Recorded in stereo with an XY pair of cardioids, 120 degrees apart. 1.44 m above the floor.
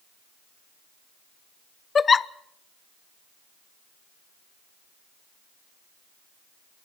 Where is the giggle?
30° left, 0.6 m.